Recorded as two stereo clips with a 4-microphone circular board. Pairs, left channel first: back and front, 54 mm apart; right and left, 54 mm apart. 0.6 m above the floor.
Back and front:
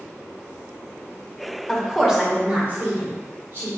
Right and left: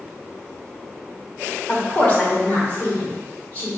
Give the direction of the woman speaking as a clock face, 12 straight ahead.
4 o'clock.